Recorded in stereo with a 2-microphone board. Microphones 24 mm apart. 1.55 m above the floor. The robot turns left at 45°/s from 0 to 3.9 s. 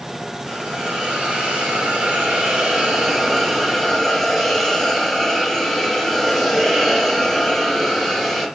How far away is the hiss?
About 3.5 m.